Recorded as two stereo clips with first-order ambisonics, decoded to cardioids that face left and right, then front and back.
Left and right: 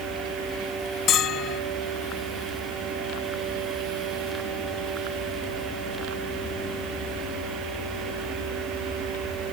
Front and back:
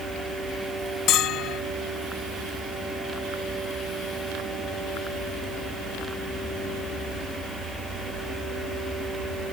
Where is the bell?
40° left.